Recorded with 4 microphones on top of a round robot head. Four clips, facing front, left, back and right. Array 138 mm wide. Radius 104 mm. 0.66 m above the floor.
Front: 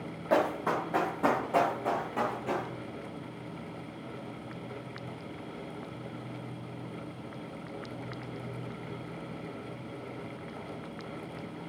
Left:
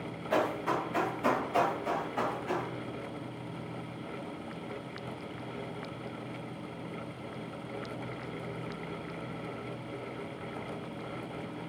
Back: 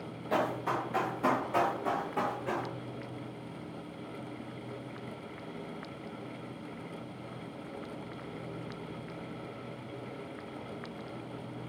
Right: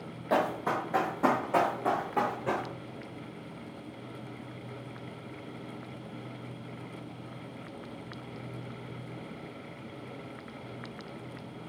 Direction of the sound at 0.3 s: 40° right.